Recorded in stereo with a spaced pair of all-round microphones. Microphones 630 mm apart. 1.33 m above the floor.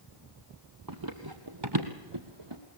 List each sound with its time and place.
0.9 s running footsteps: 35° right (ahead or behind), 1.7 m; by 2.6 s 45° right (ahead or behind), 1.8 m